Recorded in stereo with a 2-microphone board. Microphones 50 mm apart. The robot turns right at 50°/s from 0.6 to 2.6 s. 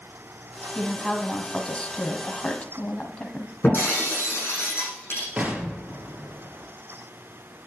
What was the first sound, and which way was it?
A woman speaking, 5° right (ahead or behind).